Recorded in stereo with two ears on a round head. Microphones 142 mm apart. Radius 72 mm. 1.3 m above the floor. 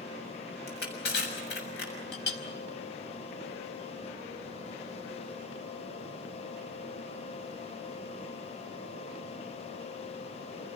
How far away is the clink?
About 4.5 m.